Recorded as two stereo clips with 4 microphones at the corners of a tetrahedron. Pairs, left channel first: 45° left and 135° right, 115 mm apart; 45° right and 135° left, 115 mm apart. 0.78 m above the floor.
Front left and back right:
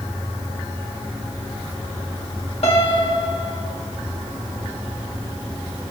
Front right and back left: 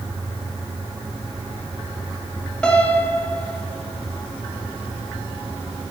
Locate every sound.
2.6 s a piano: 35° left, 1.3 m